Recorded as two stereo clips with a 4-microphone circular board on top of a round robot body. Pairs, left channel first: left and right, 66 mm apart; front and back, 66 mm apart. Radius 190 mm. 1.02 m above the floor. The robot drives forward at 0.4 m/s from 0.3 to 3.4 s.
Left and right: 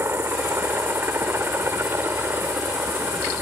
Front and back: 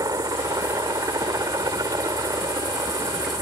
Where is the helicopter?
145° right.